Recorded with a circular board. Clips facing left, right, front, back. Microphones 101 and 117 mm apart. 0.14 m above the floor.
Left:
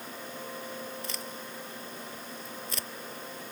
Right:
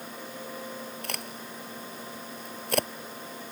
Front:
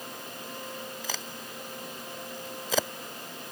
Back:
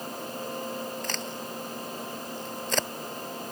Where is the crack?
85° right.